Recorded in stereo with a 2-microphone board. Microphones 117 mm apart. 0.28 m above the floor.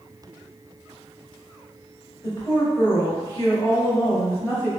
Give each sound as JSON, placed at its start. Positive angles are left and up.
{"t": 2.2, "sound": "a woman speaking", "side_deg": 25, "distance_m": 1.4}